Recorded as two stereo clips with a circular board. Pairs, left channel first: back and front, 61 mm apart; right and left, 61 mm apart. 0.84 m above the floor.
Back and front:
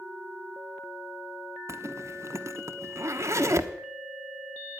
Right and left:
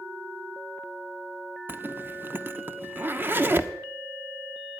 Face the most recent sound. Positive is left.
turn(degrees=35)